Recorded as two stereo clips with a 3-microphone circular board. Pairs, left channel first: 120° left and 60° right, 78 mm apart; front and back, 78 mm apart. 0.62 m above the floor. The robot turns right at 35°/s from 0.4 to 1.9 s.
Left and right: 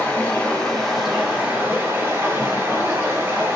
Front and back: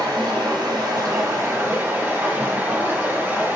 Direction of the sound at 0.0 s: 165° right.